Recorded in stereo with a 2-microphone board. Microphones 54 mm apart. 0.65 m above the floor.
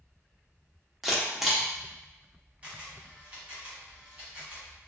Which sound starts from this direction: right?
A camera shutter, at 2.6 s.